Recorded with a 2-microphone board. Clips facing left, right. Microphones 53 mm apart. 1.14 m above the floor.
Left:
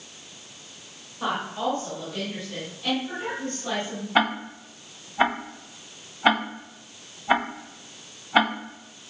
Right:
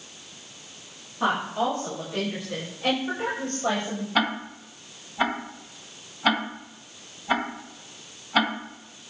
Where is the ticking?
20° left (ahead or behind), 1.5 m.